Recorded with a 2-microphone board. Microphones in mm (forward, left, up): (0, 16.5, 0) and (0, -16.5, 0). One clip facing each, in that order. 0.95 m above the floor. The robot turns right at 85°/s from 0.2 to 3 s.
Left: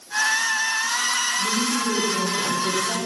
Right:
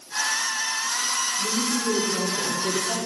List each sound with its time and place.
1.4 s a woman speaking: 135° right, 2.5 m; by 3.0 s straight ahead, 2.5 m